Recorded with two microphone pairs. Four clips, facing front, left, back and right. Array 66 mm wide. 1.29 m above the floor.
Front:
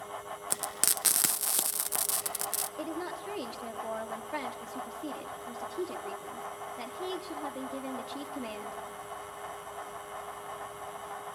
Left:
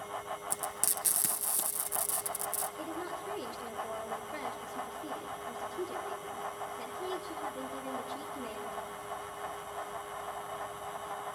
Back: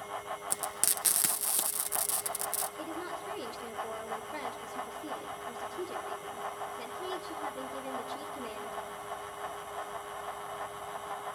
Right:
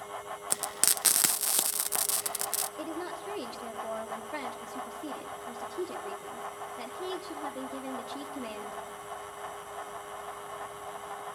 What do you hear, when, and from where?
0.5 s frying: 70° right, 0.7 m
2.8 s a woman speaking: 30° right, 3 m